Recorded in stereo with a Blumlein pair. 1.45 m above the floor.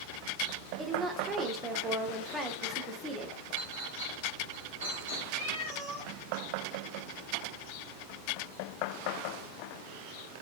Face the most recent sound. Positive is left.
turn(degrees=-35)